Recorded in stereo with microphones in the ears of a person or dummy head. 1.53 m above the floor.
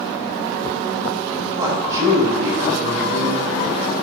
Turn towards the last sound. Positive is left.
turn(degrees=-20)  # may be behind; listen again after turning